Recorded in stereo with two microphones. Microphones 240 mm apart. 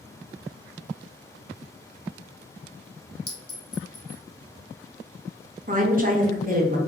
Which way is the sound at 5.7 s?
35° right (ahead or behind).